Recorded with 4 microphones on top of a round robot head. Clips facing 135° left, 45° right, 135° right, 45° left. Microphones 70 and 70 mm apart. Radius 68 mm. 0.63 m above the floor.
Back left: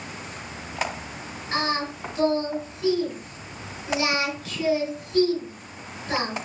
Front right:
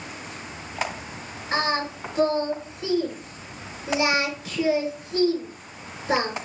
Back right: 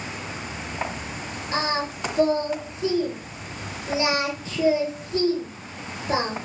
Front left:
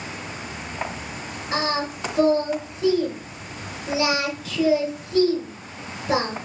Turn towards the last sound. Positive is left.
turn(degrees=25)